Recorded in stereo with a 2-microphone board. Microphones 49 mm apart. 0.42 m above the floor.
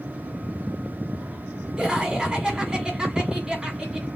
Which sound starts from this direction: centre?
Laughter, at 1.8 s.